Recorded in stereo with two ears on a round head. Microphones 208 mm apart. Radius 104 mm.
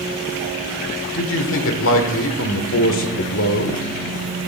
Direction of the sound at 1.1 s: 60° left (ahead or behind).